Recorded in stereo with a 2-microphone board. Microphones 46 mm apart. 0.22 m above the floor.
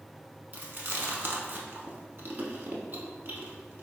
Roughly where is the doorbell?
I don't hear a doorbell.